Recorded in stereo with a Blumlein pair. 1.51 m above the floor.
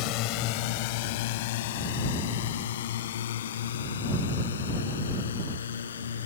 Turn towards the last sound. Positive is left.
turn(degrees=70)